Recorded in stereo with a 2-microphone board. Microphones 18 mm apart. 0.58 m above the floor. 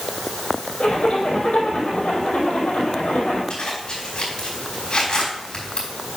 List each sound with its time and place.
0.8 s a zipper: 70° left (ahead or behind), 4 m
3.5 s a zipper: 50° left (ahead or behind), 4.5 m